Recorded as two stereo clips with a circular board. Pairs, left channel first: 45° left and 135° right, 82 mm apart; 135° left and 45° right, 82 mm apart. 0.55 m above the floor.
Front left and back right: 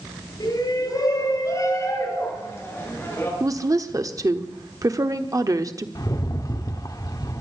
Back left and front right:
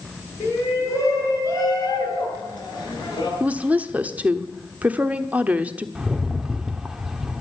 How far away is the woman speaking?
About 1.1 m.